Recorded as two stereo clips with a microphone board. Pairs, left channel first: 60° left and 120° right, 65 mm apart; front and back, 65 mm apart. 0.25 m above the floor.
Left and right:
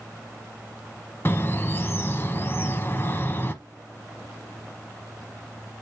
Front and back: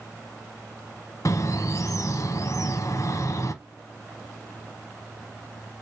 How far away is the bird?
About 0.7 m.